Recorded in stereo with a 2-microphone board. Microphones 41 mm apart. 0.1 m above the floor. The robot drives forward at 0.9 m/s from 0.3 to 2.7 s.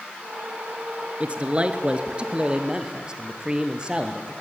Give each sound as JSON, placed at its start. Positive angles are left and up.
{"t": 1.2, "sound": "a man speaking", "side_deg": -30, "distance_m": 1.2}